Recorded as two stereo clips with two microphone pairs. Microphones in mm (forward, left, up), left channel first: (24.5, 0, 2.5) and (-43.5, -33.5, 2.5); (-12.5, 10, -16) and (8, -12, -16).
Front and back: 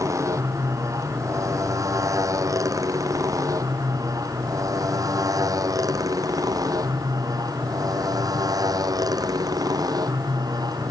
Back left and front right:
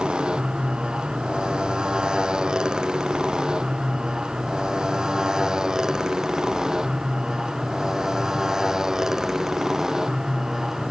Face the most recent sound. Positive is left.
turn(degrees=-120)